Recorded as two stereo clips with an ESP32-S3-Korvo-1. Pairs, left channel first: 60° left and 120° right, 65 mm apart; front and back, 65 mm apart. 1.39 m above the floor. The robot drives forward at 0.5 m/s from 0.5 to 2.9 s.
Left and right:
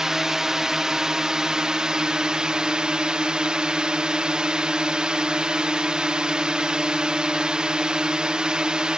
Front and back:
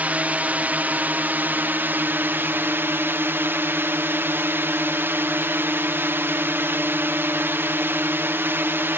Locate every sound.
0.0 s a drone: 175° left